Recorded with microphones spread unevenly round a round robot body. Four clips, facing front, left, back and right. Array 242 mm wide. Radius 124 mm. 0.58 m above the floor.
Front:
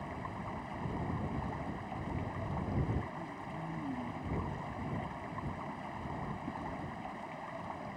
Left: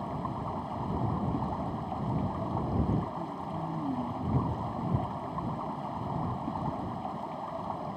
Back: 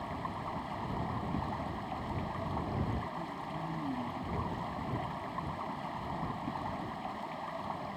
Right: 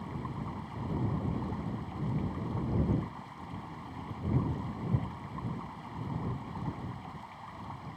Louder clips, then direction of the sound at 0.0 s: Left 5 dB, back 3 dB; 100° left.